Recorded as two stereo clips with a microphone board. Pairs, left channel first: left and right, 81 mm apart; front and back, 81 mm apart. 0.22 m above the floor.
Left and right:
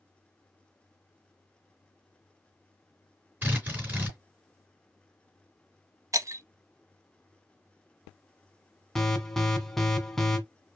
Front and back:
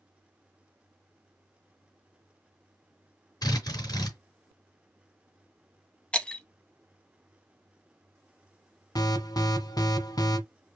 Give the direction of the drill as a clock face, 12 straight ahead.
1 o'clock.